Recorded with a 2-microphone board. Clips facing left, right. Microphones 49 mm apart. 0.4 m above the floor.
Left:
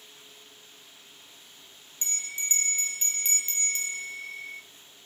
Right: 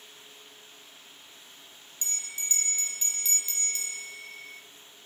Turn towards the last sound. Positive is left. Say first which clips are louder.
# left 3 dB
turn(degrees=30)  # may be behind; listen again after turning